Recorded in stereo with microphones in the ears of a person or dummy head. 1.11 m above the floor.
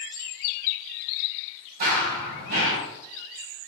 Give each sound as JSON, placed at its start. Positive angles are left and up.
{"t": 1.8, "sound": "running footsteps", "side_deg": -45, "distance_m": 1.9}